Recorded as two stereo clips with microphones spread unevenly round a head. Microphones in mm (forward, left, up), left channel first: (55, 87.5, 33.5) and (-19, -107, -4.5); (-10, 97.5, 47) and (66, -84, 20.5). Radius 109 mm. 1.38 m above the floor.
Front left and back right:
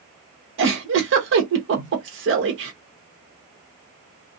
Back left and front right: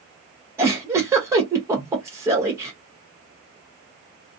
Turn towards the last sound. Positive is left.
turn(degrees=-145)